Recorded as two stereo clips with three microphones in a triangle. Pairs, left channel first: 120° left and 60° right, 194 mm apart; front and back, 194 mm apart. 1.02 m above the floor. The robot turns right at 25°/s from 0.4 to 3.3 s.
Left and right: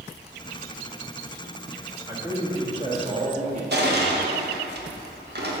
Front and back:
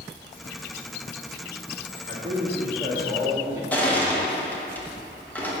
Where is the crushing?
80° right, 1.2 m.